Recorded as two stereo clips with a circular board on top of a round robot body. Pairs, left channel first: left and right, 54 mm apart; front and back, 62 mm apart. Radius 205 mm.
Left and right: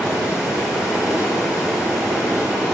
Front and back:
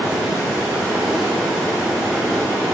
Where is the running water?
100° left, 6 m.